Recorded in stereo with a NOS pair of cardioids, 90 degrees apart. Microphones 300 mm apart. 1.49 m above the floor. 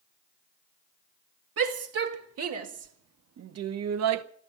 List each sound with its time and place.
1.6 s a shout: 50° right, 2.5 m; by 4.2 s 75° right, 0.8 m